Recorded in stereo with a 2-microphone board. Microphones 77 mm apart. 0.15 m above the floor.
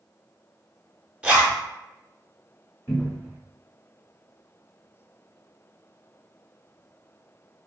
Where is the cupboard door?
30° left (ahead or behind), 1.7 m.